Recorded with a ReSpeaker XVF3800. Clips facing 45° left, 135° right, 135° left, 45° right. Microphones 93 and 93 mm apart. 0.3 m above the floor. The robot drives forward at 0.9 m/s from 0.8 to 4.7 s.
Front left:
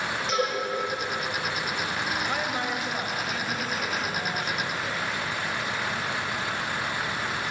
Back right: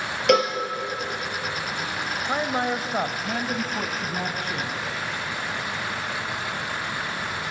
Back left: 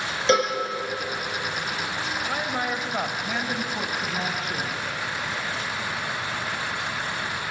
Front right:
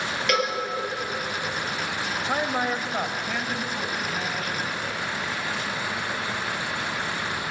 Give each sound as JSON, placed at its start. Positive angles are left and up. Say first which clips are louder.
{"t": 0.3, "sound": "a cowbell", "louder": "back right 9 dB, back left 4 dB", "azimuth_deg": -160, "distance_m": 4.0}
{"t": 2.2, "sound": "a man speaking", "louder": "back right 4 dB, front right 4 dB", "azimuth_deg": -85, "distance_m": 1.1}